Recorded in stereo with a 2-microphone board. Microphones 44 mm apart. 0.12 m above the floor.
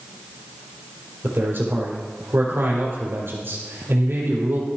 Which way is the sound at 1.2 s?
65° right (ahead or behind).